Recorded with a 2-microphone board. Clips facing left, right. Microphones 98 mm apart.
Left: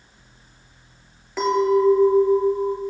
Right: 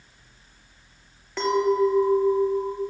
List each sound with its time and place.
1.4 s a clink: 5° left (ahead or behind), 2.5 m